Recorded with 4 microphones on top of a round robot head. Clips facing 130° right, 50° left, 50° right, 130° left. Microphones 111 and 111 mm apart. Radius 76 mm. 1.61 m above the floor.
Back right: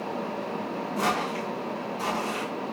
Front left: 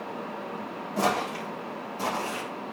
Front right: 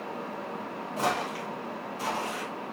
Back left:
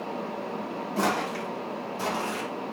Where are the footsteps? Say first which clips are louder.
Front left 2 dB, back left 2 dB; 110° left, 4.5 m; by 2.5 s 95° left, 4 m.